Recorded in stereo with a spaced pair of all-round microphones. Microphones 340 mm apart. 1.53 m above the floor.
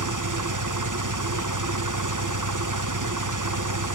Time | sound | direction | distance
0.0 | an engine running | 60° right (ahead or behind) | 1.0 m